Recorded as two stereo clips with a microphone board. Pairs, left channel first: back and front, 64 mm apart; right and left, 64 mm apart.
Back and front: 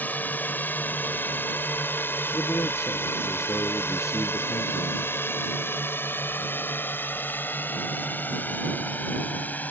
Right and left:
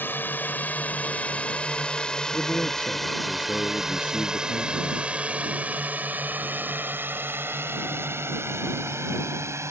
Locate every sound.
0.0 s a drone: 130° right; by 9.7 s 120° left
2.3 s a man speaking: 155° right